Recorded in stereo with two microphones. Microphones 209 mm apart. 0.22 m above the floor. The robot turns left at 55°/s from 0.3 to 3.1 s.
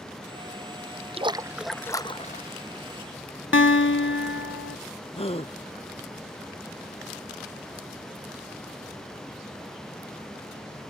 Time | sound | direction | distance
1.2 | a splash | 150° right | ?
3.5 | a guitar | 70° left (ahead or behind) | ?
5.2 | a gasp | 30° left (ahead or behind) | ?